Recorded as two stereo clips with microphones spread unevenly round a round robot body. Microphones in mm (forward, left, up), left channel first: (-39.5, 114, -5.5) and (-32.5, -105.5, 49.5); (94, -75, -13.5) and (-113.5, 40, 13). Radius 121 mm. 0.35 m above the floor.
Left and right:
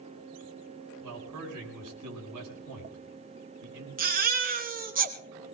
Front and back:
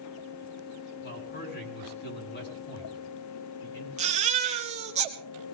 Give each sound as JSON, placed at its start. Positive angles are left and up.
{"t": 1.0, "sound": "a man speaking", "azimuth_deg": -75, "distance_m": 4.5}
{"t": 4.0, "sound": "a baby crying", "azimuth_deg": -145, "distance_m": 1.9}